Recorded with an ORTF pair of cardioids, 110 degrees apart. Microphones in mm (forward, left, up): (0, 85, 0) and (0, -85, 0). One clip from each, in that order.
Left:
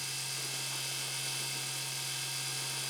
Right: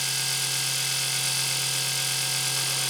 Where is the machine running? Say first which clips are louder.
Right 11 dB; 65° right, 1.1 m.